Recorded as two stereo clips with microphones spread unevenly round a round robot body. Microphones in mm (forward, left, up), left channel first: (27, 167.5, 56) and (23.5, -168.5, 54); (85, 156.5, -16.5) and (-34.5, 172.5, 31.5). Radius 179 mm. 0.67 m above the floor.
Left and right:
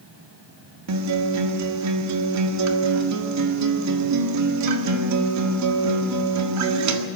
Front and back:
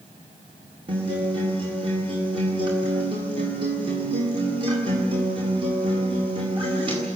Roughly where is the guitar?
Behind right.